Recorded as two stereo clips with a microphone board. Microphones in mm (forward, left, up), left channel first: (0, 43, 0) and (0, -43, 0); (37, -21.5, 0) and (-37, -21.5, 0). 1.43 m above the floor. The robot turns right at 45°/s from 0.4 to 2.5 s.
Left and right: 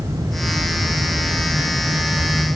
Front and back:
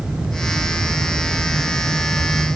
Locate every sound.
Only background noise.